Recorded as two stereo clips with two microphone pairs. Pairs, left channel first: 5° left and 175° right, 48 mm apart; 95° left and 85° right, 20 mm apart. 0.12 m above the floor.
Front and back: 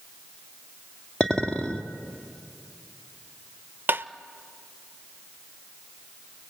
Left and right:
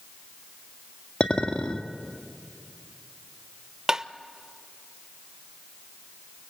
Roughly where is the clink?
Left.